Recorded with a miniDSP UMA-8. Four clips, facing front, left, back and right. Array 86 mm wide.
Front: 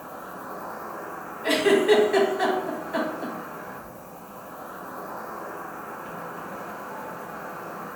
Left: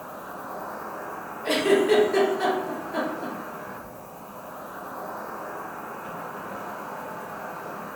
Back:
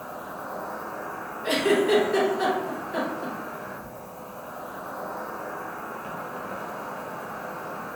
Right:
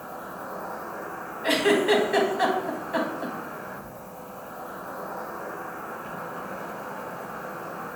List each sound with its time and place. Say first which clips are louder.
0.0 s an insect: even, back 2 dB; 170° right, 1.2 m
1.4 s a giggle: left 1 dB, front 3 dB; 65° right, 0.7 m